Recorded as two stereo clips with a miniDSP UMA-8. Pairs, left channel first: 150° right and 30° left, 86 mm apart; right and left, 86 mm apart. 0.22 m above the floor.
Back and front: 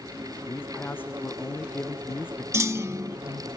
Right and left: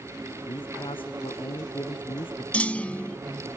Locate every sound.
0.5 s a man speaking: 80° right
2.5 s a clunk: 20° right